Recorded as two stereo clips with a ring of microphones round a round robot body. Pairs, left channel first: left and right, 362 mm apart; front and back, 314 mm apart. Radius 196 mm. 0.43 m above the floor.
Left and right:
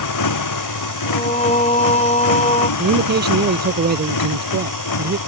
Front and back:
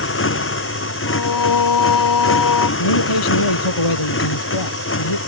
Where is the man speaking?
25° right.